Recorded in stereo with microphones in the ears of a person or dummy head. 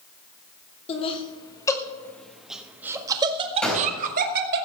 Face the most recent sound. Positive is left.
turn(degrees=10)  # may be behind; listen again after turning